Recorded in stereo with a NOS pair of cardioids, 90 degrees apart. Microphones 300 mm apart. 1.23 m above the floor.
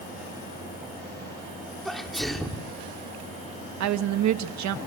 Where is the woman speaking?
65° right, 1.5 m.